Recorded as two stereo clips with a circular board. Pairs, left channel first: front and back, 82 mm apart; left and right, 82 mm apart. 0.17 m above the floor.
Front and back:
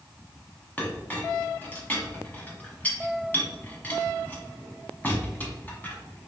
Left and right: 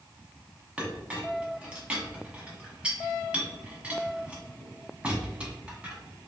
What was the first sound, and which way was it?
A clink, 35° right.